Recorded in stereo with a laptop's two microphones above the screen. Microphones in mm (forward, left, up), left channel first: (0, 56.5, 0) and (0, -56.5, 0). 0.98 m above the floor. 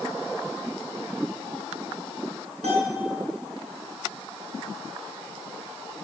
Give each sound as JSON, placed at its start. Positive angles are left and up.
{"t": 2.6, "sound": "a bell", "side_deg": -70, "distance_m": 5.5}